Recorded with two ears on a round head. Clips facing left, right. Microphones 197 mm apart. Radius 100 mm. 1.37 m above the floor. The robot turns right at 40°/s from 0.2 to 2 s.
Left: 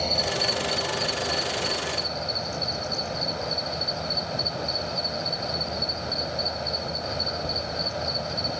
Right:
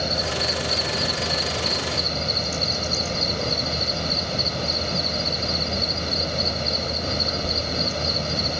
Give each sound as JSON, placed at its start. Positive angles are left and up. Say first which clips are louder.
{"t": 0.0, "sound": "an insect", "louder": "right 1 dB", "azimuth_deg": -155}